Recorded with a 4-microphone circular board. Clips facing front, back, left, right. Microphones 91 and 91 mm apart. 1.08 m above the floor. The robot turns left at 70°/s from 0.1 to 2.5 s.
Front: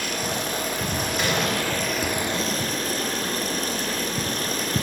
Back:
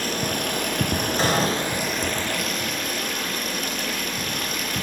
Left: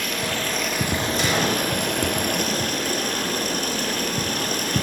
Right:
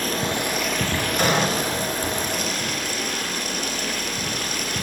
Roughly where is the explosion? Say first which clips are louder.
Back 3 dB, right 4 dB; behind right.